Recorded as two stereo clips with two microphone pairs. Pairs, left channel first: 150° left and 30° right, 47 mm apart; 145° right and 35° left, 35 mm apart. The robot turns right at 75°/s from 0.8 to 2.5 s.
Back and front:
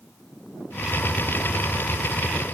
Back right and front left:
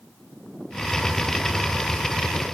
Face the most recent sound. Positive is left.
No sound to turn to.